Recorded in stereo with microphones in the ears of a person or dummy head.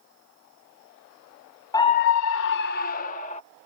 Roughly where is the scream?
Centre.